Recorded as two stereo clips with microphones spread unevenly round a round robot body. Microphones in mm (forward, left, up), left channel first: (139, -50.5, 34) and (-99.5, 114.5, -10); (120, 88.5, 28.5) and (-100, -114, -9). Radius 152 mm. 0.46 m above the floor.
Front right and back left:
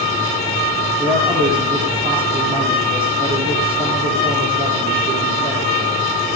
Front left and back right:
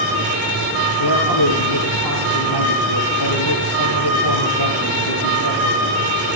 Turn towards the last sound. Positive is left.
turn(degrees=70)